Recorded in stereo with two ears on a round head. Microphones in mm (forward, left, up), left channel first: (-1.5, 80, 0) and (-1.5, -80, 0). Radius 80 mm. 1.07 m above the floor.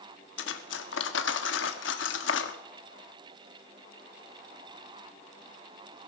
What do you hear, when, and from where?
0.4 s cutlery clinking: 75° left (ahead or behind), 1.3 m